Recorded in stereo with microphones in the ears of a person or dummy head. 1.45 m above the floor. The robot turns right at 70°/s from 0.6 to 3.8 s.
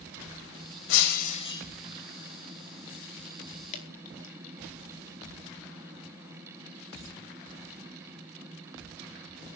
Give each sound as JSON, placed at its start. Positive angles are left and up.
{"t": 0.9, "sound": "breaking glass", "azimuth_deg": 110, "distance_m": 4.0}
{"t": 3.7, "sound": "dripping", "side_deg": 40, "distance_m": 4.0}